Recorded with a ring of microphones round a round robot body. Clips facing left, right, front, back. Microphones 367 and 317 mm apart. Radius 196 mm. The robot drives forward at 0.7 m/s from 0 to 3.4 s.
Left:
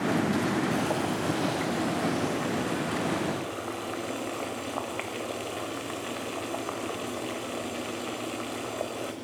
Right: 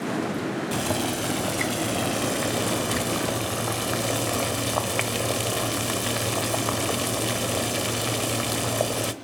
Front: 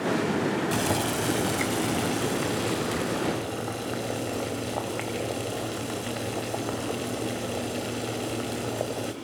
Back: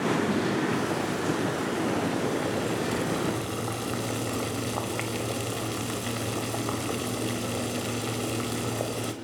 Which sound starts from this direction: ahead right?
Boiling, at 0.7 s.